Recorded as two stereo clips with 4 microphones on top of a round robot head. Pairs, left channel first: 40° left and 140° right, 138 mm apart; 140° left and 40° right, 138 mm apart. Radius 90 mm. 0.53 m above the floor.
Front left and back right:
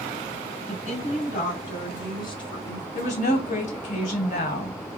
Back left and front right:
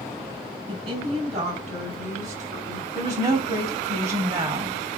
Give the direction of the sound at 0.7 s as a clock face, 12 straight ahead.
12 o'clock.